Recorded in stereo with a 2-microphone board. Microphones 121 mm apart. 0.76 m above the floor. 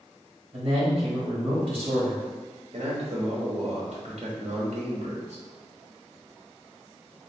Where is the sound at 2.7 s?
60° right (ahead or behind), 1.1 m.